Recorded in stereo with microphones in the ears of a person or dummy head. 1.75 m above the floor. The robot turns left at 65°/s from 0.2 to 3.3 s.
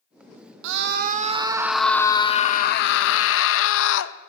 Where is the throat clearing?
I don't hear throat clearing.